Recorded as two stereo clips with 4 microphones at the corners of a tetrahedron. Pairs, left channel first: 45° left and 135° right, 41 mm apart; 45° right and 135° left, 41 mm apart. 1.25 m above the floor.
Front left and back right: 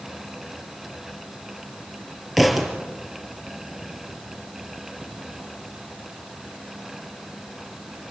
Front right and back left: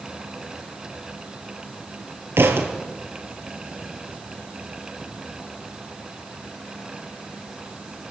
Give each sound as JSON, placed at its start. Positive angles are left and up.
{"t": 2.4, "sound": "a thud", "azimuth_deg": 135, "distance_m": 4.5}